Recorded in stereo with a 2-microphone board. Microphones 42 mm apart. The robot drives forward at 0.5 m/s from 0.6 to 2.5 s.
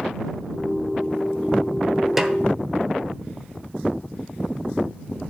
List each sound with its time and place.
2.2 s a snare drum: 5° right (ahead or behind), 0.6 m